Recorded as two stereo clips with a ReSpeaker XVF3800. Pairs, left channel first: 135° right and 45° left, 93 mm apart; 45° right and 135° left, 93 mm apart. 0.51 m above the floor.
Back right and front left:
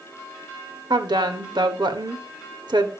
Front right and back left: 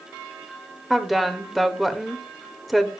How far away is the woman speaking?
About 1.6 m.